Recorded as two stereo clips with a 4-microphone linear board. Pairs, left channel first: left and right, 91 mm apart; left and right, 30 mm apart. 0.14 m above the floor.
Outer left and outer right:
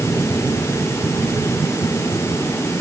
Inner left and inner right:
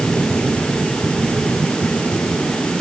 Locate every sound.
Only background noise.